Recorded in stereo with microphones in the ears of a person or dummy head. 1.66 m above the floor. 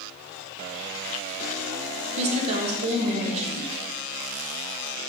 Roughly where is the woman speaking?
Right.